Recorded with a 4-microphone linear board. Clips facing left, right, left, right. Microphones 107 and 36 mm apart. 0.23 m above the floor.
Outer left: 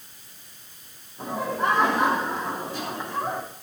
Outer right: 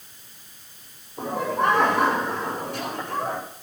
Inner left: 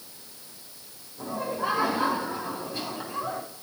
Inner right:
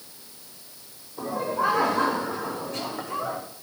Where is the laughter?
75° right (ahead or behind), 10 m.